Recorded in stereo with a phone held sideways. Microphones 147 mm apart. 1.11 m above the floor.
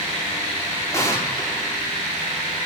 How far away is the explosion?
About 3.5 m.